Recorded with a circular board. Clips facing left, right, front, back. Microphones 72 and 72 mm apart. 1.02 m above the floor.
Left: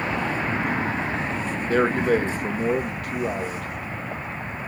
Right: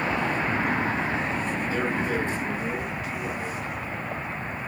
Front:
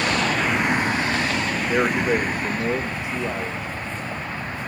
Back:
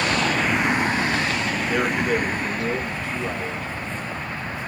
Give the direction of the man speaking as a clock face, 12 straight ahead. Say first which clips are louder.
Left 9 dB, front 2 dB; 10 o'clock.